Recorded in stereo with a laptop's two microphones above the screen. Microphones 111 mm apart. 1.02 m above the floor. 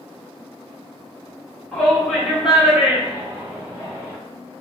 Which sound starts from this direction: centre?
A shout, at 1.7 s.